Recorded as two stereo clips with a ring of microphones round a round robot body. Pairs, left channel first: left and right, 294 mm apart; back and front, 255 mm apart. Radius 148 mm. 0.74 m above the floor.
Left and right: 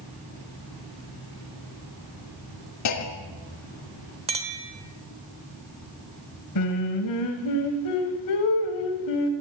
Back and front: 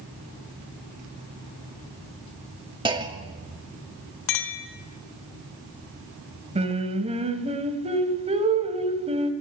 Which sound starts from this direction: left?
A clunk, at 2.9 s.